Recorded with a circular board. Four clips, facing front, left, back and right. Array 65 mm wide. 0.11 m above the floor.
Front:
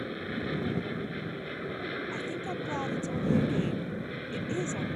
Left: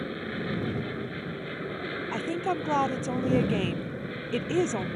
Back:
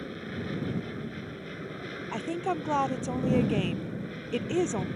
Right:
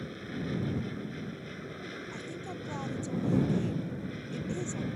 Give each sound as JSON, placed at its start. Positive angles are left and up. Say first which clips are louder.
{"t": 0.0, "sound": "an aircraft", "louder": "left 5 dB, front 2 dB", "azimuth_deg": 60}
{"t": 2.1, "sound": "a woman speaking", "louder": "left 11 dB, back 4 dB", "azimuth_deg": 125}